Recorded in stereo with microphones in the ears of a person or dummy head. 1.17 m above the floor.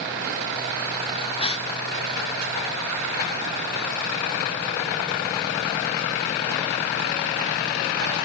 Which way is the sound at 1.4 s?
30° left (ahead or behind).